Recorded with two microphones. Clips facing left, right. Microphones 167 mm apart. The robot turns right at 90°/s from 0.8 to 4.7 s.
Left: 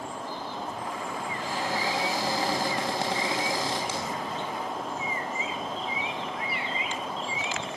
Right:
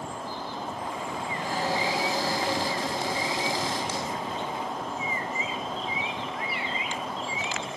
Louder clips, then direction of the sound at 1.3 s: Right 3 dB; 65° right.